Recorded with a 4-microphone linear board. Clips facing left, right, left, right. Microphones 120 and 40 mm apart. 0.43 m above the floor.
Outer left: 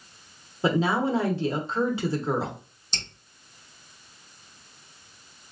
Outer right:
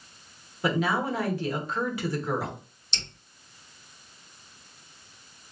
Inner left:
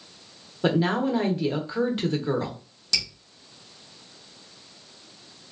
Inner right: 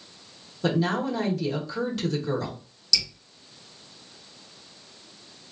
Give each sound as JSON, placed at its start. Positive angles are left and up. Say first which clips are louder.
{"t": 0.6, "sound": "a woman speaking", "louder": "outer left 3 dB, inner left 2 dB", "side_deg": 25, "distance_m": 0.9}
{"t": 2.9, "sound": "dripping", "louder": "outer left 2 dB, inner right 1 dB", "side_deg": 45, "distance_m": 1.0}